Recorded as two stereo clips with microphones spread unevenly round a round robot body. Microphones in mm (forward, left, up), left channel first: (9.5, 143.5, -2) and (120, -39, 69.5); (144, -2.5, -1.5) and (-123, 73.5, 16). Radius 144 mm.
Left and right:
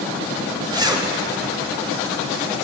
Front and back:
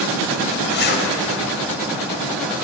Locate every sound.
0.7 s a zipper: 20° left, 1.6 m